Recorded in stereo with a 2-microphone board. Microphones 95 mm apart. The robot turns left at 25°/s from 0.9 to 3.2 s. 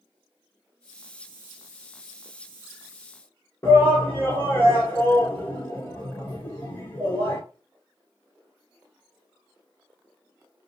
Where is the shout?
40° left (ahead or behind), 1.7 m.